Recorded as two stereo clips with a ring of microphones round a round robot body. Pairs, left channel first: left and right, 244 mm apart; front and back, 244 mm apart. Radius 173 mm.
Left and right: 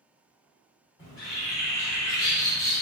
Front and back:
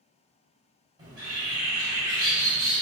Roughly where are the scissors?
I don't hear scissors.